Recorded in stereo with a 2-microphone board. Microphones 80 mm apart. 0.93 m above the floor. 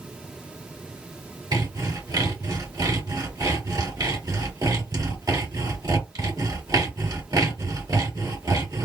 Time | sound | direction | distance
1.5 | sawing | 55° right (ahead or behind) | 2 m